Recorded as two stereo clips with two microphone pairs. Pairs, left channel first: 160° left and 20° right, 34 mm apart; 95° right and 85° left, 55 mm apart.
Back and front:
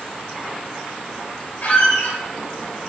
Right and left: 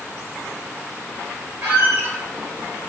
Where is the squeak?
130° left, 1.2 m.